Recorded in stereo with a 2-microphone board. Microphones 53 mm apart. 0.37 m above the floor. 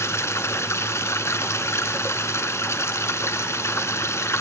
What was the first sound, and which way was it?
Running water, 60° left (ahead or behind).